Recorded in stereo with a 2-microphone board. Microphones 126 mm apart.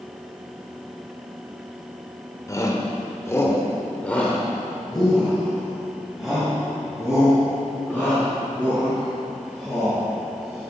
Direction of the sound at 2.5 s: 25° left (ahead or behind).